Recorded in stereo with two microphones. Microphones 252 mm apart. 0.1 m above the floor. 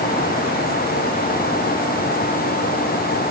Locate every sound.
Only background noise.